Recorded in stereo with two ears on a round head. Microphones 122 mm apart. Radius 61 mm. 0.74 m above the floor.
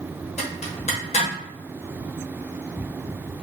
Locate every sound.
0.4 s a zipper: 50° left (ahead or behind), 0.8 m